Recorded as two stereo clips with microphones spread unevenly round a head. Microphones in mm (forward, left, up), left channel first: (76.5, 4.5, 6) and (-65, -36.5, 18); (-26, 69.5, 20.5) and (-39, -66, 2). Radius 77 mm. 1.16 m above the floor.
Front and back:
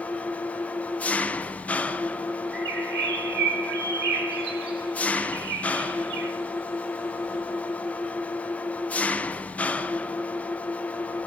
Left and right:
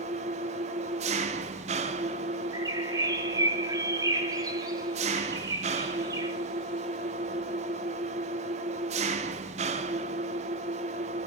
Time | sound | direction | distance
0.0 | an engine running | 60° right | 0.8 m
2.5 | a bird | 160° right | 1.8 m